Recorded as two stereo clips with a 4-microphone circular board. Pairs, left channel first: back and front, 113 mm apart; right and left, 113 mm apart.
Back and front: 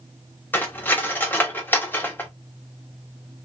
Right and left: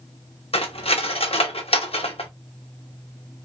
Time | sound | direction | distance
0.5 | cutlery clinking | 110° right | 0.7 m